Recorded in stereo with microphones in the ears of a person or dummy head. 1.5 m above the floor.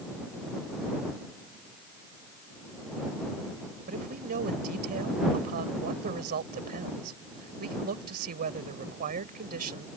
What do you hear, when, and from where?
3.9 s a man speaking: 45° right (ahead or behind)